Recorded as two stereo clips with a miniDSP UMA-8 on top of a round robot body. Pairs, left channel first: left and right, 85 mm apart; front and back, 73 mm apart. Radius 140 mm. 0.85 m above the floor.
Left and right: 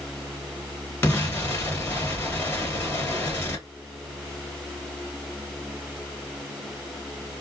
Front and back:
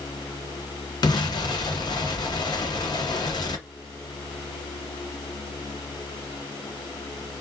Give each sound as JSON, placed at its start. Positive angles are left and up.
{"t": 1.0, "sound": "an explosion", "azimuth_deg": 25, "distance_m": 1.4}